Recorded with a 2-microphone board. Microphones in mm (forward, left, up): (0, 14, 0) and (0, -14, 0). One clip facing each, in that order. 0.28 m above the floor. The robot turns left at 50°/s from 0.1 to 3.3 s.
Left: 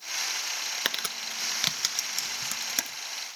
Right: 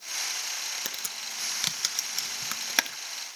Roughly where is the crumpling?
Left.